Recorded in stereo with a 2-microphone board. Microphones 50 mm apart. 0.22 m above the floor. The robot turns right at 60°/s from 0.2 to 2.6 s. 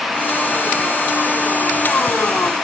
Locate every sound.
Only background noise.